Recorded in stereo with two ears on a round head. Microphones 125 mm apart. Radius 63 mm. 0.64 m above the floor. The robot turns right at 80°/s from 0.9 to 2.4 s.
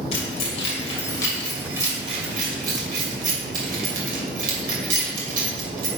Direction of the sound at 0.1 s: 50° left (ahead or behind).